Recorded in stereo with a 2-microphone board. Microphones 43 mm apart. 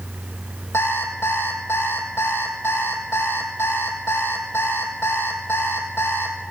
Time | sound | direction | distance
0.7 | an alarm clock | 70° left (ahead or behind) | 3 m